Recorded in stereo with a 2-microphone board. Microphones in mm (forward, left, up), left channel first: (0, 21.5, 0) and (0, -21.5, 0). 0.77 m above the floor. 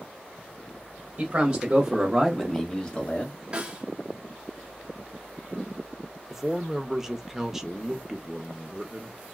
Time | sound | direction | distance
1.2 | a man speaking | 30° right (ahead or behind) | 1.1 m
3.5 | a snare drum | 25° right (ahead or behind) | 0.8 m
6.3 | a man speaking | 10° right (ahead or behind) | 0.6 m